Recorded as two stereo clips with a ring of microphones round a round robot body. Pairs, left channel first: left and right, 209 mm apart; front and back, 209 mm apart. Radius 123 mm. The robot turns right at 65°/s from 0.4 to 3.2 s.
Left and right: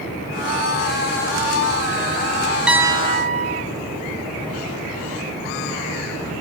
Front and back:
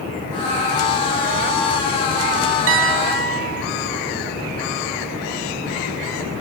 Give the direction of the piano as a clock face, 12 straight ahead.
6 o'clock.